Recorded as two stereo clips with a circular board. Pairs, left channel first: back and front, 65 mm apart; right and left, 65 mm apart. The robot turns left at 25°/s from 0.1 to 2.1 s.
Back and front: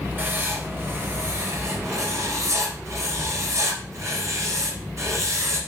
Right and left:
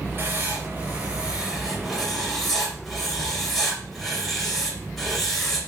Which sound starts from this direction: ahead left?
Writing, at 0.2 s.